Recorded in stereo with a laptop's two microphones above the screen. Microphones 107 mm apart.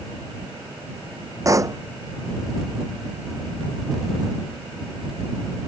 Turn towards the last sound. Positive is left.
turn(degrees=-30)  # may be behind; listen again after turning